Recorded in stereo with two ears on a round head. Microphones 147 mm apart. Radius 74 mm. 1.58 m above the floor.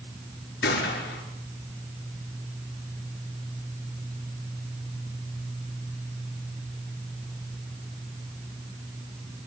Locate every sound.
0.6 s a gunshot: 75° left (ahead or behind), 8 m